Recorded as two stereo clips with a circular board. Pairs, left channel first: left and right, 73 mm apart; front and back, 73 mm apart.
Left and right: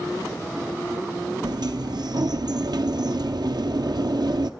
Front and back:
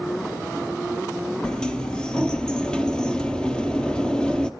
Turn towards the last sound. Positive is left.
turn(degrees=-80)